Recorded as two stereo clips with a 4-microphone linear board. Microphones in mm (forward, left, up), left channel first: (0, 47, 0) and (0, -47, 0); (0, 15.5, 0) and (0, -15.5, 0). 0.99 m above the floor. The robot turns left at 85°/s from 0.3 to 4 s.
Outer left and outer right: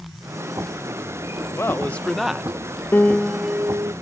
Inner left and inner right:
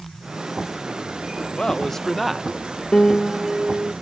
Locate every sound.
1.6 s a man speaking: 55° left; by 2.8 s 50° right
2.9 s a piano: 30° left; by 3.9 s 55° right